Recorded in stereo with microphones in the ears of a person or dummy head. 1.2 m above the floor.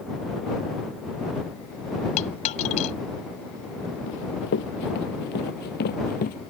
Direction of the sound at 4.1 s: 70° left (ahead or behind).